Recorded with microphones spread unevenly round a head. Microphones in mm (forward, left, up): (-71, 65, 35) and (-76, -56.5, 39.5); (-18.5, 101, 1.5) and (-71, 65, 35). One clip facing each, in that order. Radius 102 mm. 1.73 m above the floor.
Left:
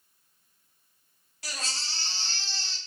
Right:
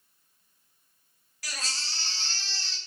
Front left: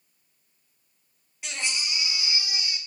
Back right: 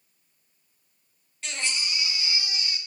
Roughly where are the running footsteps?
I don't hear running footsteps.